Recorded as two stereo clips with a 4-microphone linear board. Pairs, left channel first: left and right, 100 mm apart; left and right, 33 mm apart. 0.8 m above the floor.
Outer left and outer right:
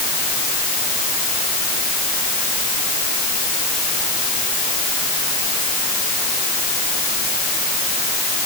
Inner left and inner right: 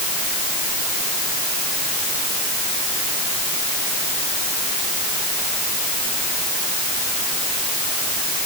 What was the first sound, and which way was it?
Only background noise.